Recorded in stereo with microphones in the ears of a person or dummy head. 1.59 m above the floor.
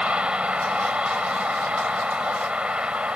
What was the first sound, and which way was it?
A vehicle, 5° right (ahead or behind).